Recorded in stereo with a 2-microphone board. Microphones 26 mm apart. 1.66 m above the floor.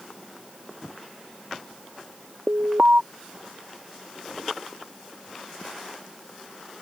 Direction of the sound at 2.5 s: 75° right (ahead or behind).